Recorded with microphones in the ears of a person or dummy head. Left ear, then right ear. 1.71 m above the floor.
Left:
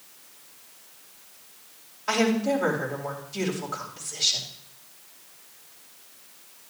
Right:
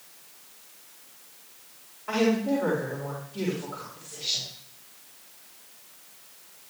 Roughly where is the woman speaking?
Left.